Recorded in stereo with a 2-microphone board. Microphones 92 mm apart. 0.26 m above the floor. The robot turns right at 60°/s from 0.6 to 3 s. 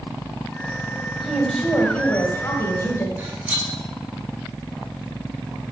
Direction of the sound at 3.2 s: 15° right (ahead or behind).